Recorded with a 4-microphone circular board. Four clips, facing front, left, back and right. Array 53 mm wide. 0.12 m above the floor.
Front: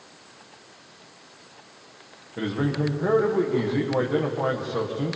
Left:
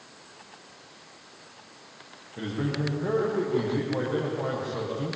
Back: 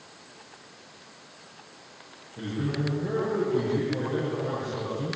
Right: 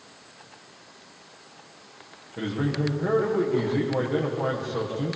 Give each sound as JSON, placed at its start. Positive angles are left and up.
{"t": 2.4, "sound": "a man speaking", "azimuth_deg": -10, "distance_m": 5.5}